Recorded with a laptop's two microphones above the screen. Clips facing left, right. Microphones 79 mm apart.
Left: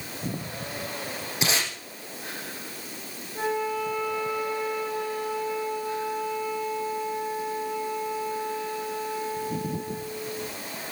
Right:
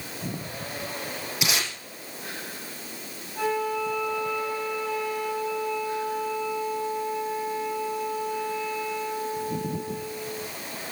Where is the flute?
45° left (ahead or behind), 5.5 m.